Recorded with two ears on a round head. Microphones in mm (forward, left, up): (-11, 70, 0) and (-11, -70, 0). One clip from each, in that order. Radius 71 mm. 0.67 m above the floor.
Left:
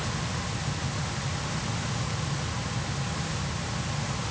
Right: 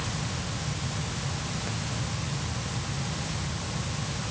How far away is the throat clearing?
I don't hear throat clearing.